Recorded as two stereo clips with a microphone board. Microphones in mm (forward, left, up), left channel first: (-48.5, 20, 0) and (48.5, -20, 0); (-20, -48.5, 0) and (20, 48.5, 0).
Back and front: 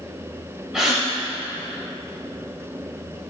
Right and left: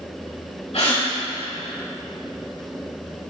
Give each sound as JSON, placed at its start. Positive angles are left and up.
{"t": 0.7, "sound": "a gasp", "azimuth_deg": -105, "distance_m": 3.0}